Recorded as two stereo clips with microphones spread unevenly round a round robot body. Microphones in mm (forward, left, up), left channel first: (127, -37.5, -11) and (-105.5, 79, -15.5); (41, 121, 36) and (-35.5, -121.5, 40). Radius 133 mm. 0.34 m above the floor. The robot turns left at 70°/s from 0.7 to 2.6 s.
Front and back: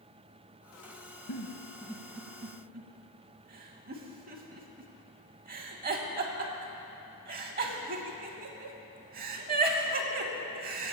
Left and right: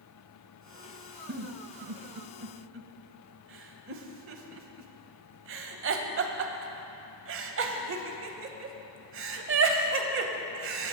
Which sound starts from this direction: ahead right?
A giggle, at 1.3 s.